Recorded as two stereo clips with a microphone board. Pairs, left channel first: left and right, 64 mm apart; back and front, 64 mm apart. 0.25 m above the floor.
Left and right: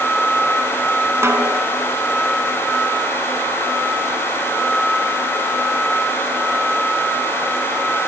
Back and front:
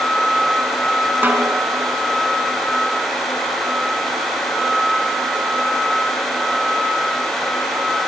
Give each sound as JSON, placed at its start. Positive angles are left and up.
{"t": 1.2, "sound": "a snare drum", "azimuth_deg": -55, "distance_m": 3.0}